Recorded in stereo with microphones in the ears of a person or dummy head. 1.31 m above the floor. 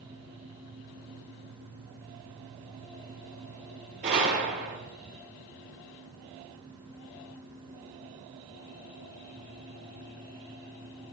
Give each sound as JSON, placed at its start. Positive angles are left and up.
{"t": 4.0, "sound": "a gunshot", "side_deg": -45, "distance_m": 1.9}